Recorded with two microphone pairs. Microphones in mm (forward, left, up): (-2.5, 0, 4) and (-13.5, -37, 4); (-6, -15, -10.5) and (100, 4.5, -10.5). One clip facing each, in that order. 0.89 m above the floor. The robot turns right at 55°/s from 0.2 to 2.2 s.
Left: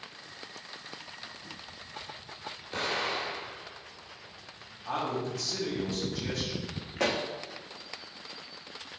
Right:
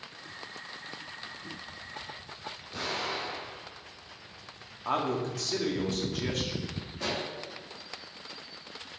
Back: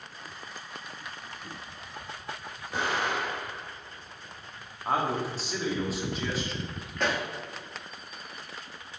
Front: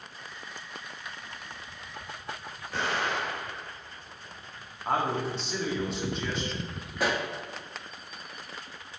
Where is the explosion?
115° left, 1.4 m.